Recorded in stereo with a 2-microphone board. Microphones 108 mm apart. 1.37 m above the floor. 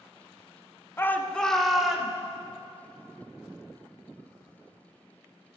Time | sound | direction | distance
1.0 | a shout | 20° left (ahead or behind) | 0.6 m